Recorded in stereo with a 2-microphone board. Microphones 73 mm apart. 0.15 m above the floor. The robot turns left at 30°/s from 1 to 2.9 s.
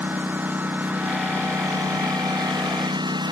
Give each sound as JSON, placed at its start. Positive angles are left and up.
{"t": 0.0, "sound": "a lawn mower", "side_deg": -25}